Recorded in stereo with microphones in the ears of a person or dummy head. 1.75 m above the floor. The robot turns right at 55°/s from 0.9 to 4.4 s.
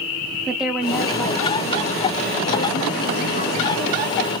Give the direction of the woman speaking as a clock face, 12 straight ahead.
12 o'clock.